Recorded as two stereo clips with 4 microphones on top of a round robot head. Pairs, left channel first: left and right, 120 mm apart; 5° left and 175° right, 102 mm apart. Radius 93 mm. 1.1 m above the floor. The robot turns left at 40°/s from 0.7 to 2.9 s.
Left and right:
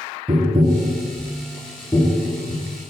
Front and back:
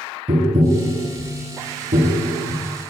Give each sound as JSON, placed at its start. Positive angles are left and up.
{"t": 0.3, "sound": "tapping", "azimuth_deg": -145, "distance_m": 1.3}